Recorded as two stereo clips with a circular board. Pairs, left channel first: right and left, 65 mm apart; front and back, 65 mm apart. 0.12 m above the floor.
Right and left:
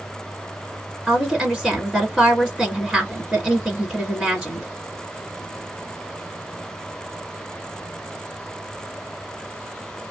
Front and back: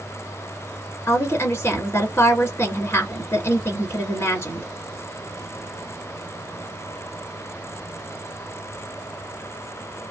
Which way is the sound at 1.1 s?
5° left.